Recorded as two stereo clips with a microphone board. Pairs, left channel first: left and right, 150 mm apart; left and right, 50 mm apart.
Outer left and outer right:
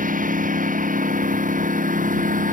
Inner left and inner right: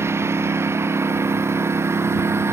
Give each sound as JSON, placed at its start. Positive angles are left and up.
{"t": 0.0, "sound": "a lawn mower", "side_deg": -65}